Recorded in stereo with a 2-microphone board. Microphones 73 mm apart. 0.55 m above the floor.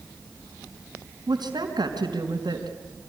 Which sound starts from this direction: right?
A woman speaking, at 1.3 s.